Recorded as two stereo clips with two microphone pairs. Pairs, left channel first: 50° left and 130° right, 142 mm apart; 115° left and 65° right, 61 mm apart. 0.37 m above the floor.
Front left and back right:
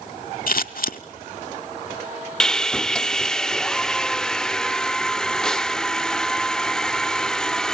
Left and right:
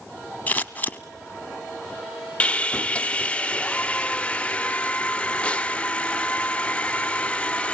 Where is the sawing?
120° left, 0.5 m.